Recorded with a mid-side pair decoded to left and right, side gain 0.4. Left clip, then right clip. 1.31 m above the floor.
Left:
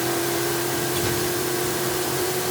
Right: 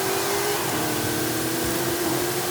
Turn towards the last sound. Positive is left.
No sound to turn to.